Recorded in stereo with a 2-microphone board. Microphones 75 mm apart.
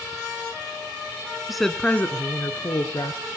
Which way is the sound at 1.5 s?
5° right (ahead or behind).